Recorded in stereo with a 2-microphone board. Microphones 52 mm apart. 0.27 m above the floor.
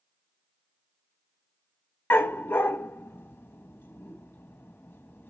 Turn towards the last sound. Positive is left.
turn(degrees=45)  # may be behind; listen again after turning